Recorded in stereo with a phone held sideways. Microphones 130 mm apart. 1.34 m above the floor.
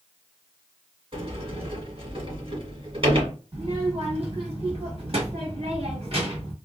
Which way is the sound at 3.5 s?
55° right (ahead or behind).